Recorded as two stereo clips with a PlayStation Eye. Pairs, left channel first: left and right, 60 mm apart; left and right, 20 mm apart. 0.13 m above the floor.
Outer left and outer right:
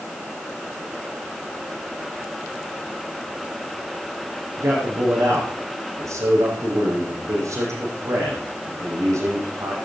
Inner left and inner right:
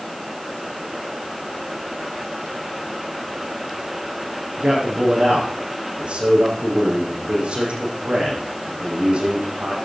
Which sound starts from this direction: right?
A man speaking, at 4.6 s.